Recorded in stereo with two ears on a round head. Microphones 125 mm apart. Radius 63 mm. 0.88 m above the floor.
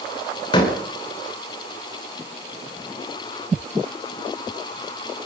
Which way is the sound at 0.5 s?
35° left (ahead or behind).